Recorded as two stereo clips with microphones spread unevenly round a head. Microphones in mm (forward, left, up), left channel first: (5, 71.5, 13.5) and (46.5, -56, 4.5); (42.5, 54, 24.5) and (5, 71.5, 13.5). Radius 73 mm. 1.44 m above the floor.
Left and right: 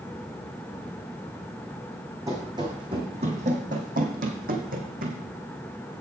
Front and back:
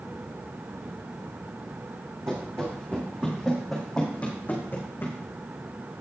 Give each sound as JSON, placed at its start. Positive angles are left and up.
{"t": 2.3, "sound": "running footsteps", "azimuth_deg": -140, "distance_m": 3.0}